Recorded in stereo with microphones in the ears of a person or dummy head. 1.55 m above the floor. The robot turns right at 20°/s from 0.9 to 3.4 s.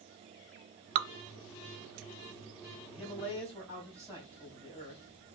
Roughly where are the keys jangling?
No keys jangling in this recording.